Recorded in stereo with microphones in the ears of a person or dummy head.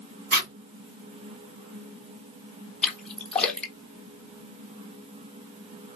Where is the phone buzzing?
I don't hear a phone buzzing.